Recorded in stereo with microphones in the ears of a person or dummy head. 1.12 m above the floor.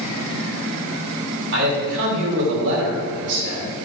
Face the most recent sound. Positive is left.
turn(degrees=-70)  # may be behind; listen again after turning